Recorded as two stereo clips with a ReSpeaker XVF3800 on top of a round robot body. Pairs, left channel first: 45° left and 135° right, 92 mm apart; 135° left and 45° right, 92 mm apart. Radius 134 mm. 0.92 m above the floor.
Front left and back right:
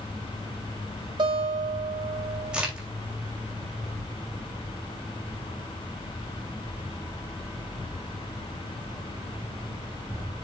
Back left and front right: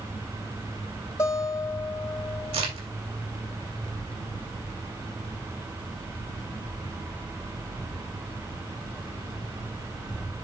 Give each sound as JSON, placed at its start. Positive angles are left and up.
{"t": 1.2, "sound": "a guitar", "azimuth_deg": -165, "distance_m": 2.5}
{"t": 2.5, "sound": "a crack", "azimuth_deg": -55, "distance_m": 2.5}